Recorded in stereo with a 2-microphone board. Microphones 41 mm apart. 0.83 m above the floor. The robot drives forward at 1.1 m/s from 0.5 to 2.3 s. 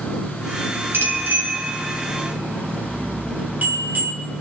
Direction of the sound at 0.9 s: 55° right (ahead or behind).